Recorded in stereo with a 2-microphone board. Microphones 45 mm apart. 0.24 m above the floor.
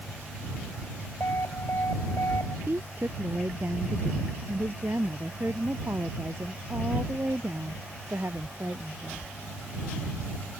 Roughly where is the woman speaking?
Right.